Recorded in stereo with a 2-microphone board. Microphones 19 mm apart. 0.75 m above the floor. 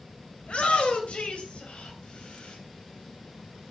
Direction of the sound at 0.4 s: 75° left (ahead or behind).